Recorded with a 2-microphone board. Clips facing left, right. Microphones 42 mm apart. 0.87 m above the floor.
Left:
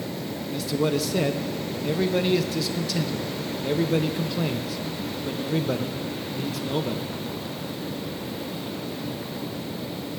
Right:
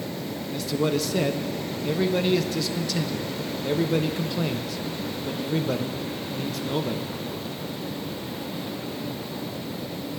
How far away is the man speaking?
About 0.5 m.